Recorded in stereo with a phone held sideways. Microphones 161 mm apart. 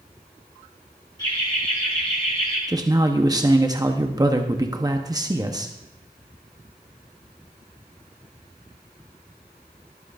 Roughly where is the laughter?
Left.